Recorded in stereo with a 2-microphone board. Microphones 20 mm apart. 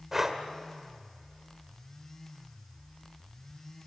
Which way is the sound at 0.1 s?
15° right (ahead or behind).